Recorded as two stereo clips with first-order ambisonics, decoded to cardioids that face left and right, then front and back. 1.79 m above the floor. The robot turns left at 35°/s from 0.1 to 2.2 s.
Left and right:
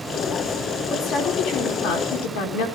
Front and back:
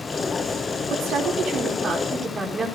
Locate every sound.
0.9 s a woman speaking: 145° left, 5 m; by 2.7 s 100° left, 5 m